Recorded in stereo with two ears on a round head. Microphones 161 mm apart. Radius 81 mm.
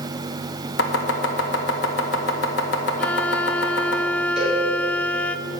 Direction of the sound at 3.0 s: 10° left (ahead or behind).